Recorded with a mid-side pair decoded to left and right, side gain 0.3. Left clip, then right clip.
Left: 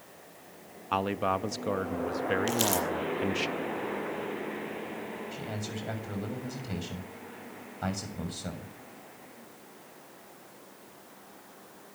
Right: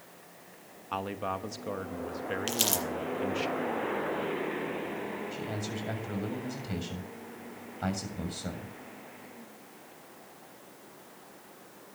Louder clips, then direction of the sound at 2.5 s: Left 2 dB; 30° right.